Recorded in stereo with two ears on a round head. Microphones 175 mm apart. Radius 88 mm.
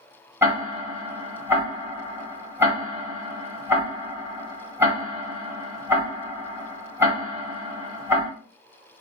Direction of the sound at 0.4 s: 15° right (ahead or behind).